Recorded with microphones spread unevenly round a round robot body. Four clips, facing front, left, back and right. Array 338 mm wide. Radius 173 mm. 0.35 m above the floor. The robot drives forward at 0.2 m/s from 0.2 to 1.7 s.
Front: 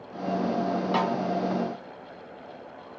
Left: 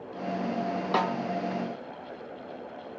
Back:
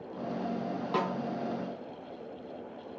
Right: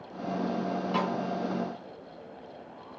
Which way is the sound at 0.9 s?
85° left.